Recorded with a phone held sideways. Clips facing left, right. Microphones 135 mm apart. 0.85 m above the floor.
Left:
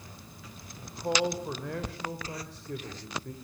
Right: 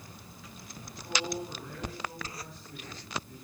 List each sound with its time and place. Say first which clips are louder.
0.8 s a man speaking: left 8 dB; 80° left, 3 m